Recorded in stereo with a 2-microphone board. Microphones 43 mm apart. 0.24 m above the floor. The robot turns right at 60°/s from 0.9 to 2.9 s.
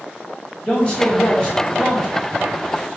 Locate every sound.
0.6 s a man speaking: 25° left (ahead or behind), 1.5 m; by 2.1 s 5° left (ahead or behind), 1.5 m